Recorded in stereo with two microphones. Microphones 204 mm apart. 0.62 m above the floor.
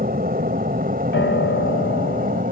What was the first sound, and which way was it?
An aircraft, 45° right (ahead or behind).